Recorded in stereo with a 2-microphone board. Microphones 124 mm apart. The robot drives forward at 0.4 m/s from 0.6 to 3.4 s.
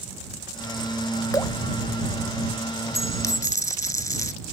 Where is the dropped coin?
25° left (ahead or behind).